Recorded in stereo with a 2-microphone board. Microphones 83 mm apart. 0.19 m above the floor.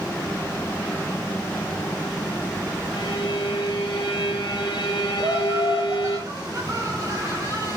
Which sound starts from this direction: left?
A violin, at 2.9 s.